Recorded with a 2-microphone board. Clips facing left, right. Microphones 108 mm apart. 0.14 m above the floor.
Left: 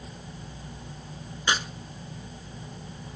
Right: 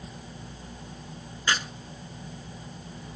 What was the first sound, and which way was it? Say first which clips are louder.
Tearing paper: left 1 dB; 20° left (ahead or behind).